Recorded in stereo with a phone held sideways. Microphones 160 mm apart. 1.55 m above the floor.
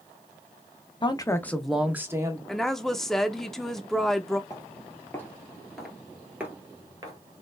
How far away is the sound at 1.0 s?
About 0.7 m.